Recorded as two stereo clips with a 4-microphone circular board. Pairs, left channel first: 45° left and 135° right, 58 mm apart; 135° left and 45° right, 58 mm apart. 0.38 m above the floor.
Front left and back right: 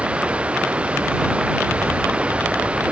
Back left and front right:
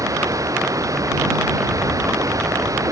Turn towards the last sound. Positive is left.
turn(degrees=-65)